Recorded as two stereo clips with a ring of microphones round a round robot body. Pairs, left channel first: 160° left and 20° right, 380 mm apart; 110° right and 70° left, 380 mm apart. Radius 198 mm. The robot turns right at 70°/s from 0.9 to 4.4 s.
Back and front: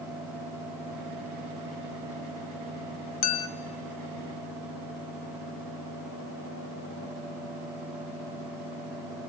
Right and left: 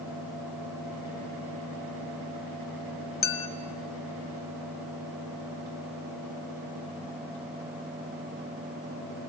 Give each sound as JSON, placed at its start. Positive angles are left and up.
{"t": 3.2, "sound": "a clink", "azimuth_deg": 180, "distance_m": 1.2}